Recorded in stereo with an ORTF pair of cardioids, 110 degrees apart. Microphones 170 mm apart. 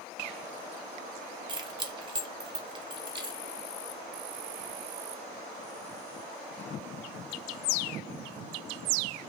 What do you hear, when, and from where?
1.5 s keys jangling: 25° right, 0.6 m